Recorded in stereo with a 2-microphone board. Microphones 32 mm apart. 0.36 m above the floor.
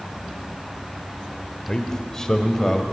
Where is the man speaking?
25° left (ahead or behind), 1.3 m; by 2.8 s 10° left (ahead or behind), 2 m.